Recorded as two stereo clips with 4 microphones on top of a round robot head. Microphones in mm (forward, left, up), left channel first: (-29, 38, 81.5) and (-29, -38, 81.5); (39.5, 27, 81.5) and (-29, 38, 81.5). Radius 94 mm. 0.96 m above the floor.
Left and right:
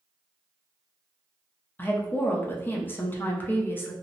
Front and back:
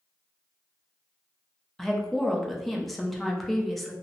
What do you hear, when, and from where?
1.8 s a woman speaking: 75° left, 0.6 m